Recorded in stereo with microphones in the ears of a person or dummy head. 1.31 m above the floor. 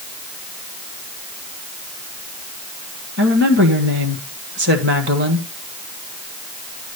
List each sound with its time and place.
3.2 s a woman speaking: 60° right (ahead or behind), 1.4 m